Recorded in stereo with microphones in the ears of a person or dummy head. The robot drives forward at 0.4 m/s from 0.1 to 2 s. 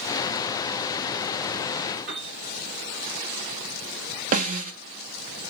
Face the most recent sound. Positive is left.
turn(degrees=-45)  # may be behind; listen again after turning